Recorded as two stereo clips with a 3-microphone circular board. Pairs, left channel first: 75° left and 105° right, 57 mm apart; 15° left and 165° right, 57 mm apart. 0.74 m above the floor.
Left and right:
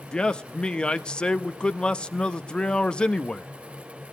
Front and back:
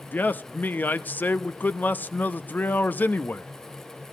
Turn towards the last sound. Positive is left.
turn(degrees=20)